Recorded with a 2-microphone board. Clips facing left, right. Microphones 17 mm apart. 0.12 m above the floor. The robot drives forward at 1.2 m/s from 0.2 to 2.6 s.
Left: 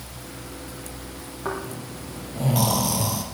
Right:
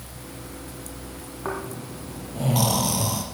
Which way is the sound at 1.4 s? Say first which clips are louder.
Left 1 dB; 5° right (ahead or behind).